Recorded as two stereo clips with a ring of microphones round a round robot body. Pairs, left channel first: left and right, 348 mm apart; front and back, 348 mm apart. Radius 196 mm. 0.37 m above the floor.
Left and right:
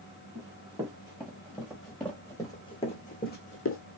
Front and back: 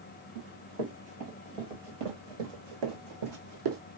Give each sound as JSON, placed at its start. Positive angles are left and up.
{"t": 0.3, "sound": "running footsteps", "azimuth_deg": -165, "distance_m": 3.0}